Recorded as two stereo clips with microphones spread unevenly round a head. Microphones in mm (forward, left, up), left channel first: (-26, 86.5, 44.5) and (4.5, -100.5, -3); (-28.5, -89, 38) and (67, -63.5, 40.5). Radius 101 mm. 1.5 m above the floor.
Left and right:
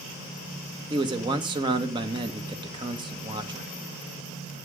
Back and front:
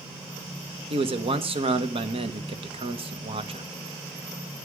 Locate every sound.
0.9 s a man speaking: 10° right, 1.3 m